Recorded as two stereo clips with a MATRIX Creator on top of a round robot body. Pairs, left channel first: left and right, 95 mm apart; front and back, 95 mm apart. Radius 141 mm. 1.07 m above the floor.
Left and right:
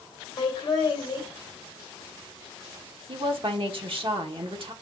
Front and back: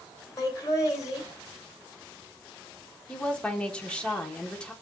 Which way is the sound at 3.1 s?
75° right.